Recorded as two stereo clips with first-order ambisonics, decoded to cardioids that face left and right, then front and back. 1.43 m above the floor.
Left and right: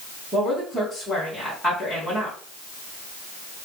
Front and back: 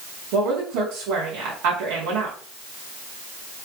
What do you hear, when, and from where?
0.3 s a woman speaking: straight behind, 2 m